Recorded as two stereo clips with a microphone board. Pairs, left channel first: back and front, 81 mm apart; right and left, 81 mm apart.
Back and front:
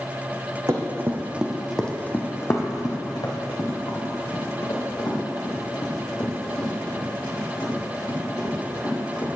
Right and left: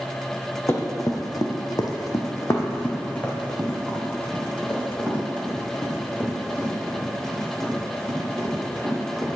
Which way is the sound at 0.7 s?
45° right.